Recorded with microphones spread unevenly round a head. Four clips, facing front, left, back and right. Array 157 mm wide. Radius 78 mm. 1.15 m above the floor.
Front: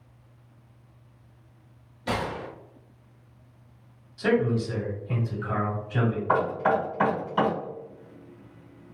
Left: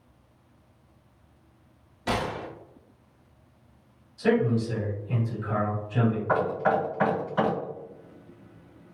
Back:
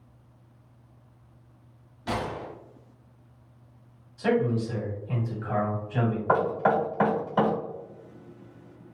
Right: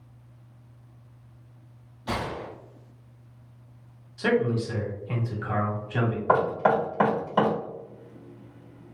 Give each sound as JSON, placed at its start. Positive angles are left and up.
{"t": 2.1, "sound": "a gunshot", "azimuth_deg": 75, "distance_m": 1.1}
{"t": 4.2, "sound": "a man speaking", "azimuth_deg": -60, "distance_m": 1.6}
{"t": 6.3, "sound": "knocking", "azimuth_deg": -100, "distance_m": 1.3}